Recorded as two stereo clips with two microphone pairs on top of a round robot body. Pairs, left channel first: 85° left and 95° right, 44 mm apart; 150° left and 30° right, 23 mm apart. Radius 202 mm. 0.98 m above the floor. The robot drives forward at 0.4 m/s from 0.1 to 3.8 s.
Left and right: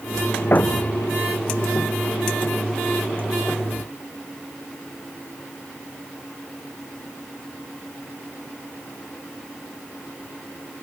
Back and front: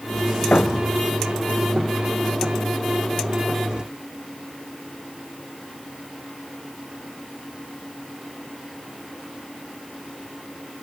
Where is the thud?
130° left.